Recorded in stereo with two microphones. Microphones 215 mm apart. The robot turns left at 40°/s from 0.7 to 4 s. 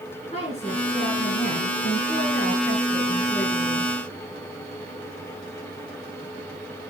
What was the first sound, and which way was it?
A woman speaking, 145° left.